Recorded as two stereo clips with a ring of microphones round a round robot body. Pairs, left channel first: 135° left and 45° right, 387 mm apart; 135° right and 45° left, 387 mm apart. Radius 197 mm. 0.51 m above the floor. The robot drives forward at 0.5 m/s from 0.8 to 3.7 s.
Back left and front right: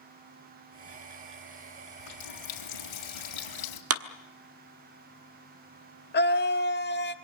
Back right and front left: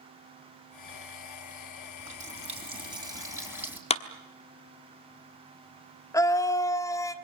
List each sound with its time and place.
2.0 s a running tap: 115° left, 2.5 m; by 3.8 s 130° left, 3 m
3.9 s a clap: 70° right, 1.2 m
6.1 s a scream: 155° left, 1.3 m